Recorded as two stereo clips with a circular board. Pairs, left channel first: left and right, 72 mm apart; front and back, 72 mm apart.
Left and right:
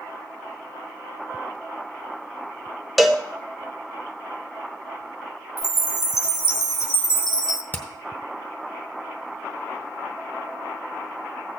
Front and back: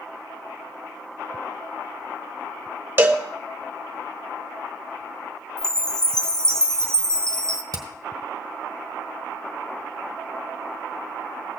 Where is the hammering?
150° left, 1.3 m.